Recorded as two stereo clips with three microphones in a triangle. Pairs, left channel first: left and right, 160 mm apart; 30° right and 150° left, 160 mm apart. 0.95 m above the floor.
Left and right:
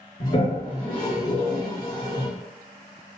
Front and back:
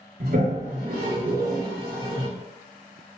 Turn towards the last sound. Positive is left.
turn(degrees=125)